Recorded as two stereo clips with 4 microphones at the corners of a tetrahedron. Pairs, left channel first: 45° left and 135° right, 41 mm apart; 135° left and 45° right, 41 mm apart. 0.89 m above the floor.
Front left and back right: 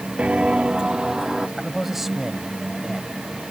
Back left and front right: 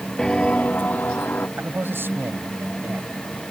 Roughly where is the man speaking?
Ahead right.